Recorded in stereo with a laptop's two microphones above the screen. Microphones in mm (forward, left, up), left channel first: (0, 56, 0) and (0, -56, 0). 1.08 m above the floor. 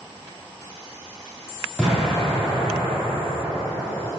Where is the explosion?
10° right (ahead or behind), 1.8 m.